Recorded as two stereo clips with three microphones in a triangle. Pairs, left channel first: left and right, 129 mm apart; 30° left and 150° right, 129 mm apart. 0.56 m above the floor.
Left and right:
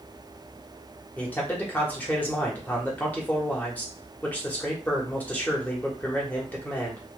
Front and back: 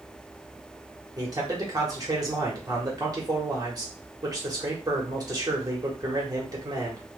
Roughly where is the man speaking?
Behind.